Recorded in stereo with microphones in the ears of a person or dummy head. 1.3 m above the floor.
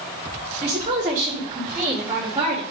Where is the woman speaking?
35° right (ahead or behind), 3 m; by 2.6 s 15° right (ahead or behind), 3.5 m.